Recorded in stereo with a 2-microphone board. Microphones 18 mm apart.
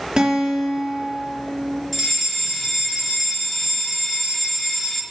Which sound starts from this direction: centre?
A fire alarm, at 1.9 s.